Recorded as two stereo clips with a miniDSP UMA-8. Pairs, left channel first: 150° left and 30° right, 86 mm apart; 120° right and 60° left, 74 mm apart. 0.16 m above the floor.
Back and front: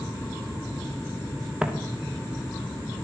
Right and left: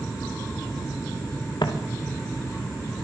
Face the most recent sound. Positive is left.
turn(degrees=-110)